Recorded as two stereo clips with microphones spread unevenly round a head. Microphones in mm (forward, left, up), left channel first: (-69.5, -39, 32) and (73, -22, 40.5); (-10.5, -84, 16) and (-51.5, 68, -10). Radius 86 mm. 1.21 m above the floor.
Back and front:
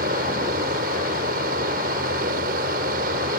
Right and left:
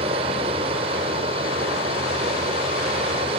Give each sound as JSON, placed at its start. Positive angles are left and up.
{"t": 0.0, "sound": "a fan", "azimuth_deg": 45}